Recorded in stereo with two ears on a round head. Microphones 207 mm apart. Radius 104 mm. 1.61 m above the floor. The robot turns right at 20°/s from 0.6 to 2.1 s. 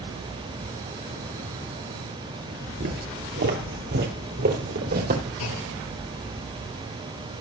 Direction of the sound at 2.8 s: 45° right (ahead or behind).